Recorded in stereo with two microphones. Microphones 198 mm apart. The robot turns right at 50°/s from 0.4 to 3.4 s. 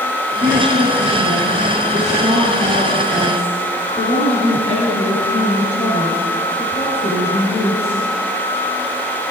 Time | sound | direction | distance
0.4 | a woman speaking | 120° right | 4 m